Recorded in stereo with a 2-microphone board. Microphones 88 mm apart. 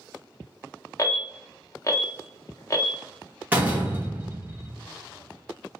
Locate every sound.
1.0 s an alarm: 35° left (ahead or behind), 0.6 m
3.5 s a door slam: 20° right (ahead or behind), 1.0 m